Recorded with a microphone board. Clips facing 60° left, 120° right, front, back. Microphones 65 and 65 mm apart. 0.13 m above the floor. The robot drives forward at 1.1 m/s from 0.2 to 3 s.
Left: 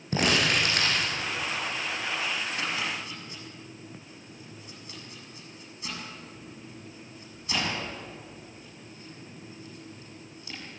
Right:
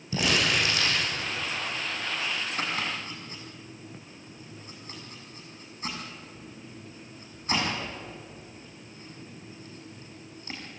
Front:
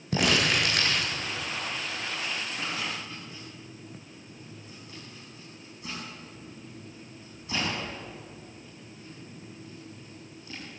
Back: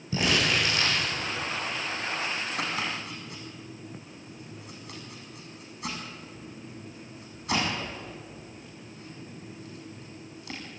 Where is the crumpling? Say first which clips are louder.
Left 1 dB, front 1 dB; 25° left, 6.5 m.